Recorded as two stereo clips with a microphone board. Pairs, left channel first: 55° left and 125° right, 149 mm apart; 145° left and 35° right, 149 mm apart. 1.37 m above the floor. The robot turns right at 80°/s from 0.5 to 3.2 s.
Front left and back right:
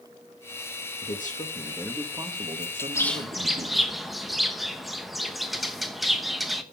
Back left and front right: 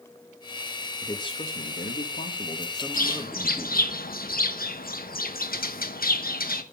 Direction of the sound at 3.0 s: 125° left.